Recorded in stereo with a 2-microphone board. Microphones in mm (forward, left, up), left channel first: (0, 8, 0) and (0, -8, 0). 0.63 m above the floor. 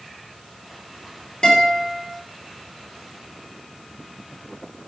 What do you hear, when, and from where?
1.4 s a guitar: 60° left (ahead or behind), 2 m